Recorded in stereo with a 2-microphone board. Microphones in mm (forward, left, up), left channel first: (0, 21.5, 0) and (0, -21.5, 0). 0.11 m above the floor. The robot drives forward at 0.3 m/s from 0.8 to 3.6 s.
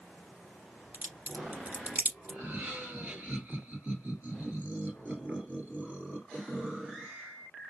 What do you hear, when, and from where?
0.9 s a crack: 40° right (ahead or behind), 2 m; by 2.4 s 35° right (ahead or behind), 2.5 m
2.3 s laughter: 45° right (ahead or behind), 2.0 m; by 7.1 s 40° right (ahead or behind), 2 m